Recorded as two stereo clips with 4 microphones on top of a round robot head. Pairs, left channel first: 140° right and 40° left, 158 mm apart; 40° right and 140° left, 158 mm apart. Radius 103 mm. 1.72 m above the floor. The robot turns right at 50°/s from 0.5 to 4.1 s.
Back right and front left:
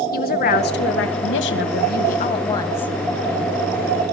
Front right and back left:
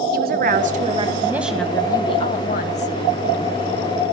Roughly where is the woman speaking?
Behind.